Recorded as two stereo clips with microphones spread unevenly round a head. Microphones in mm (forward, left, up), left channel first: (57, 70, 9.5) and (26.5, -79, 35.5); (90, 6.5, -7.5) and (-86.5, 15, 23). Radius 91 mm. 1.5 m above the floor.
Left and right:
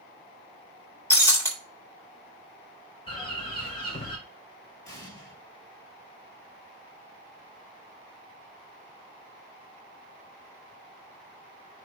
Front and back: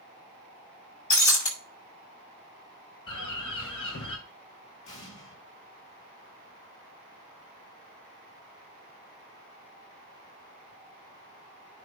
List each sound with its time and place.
1.1 s breaking glass: 5° left, 6 m
3.1 s a bird: 25° left, 5 m
4.8 s an explosion: 10° left, 6.5 m